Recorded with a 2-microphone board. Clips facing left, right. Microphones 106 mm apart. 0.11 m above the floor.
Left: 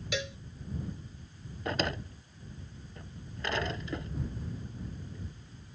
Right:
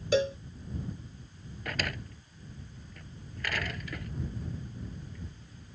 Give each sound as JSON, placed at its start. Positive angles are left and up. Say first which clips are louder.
{"t": 0.1, "sound": "a cowbell", "louder": "right 11 dB", "side_deg": -35}
{"t": 1.6, "sound": "a drawer", "louder": "left 4 dB", "side_deg": 25}